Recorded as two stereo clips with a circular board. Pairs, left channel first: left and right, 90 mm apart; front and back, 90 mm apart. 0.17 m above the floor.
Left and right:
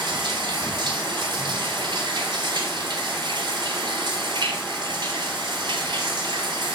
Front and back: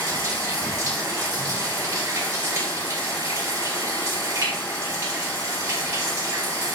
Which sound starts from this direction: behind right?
Running water, at 0.0 s.